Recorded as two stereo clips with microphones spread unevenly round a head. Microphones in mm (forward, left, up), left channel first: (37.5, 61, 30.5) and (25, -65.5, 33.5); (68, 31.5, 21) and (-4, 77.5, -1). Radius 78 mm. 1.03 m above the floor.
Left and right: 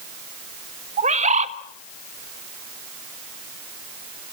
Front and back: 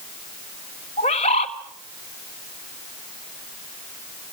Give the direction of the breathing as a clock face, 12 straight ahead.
No breathing in this recording.